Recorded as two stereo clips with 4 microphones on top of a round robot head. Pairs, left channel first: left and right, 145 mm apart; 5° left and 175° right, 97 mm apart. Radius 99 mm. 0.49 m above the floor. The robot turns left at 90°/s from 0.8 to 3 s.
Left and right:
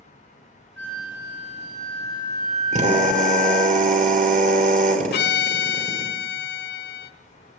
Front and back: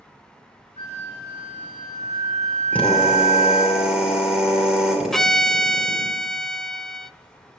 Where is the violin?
90° left, 0.7 m.